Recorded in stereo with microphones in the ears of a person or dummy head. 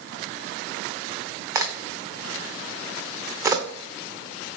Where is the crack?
25° right (ahead or behind), 0.5 m.